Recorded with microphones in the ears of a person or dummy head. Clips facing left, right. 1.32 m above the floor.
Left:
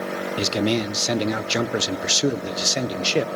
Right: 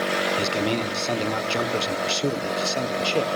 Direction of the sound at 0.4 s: 20° left (ahead or behind).